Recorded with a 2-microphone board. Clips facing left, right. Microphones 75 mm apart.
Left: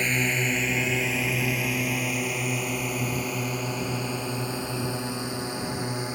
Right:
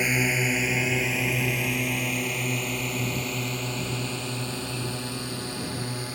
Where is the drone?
10° right (ahead or behind); by 6.2 s 20° left (ahead or behind).